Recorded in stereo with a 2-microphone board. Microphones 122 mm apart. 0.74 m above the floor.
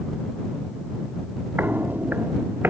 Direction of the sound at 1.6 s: 15° right (ahead or behind).